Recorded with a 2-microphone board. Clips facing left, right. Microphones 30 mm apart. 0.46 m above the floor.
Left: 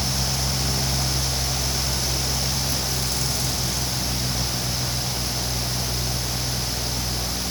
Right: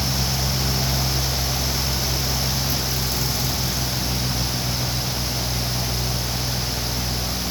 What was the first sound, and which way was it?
Only background noise.